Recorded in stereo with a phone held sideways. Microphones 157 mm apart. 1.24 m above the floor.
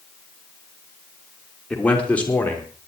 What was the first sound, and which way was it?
A man speaking, 5° left (ahead or behind).